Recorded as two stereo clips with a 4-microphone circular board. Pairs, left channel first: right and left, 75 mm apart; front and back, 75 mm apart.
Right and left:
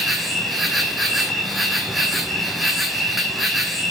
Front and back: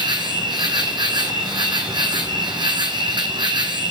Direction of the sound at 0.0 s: Straight behind.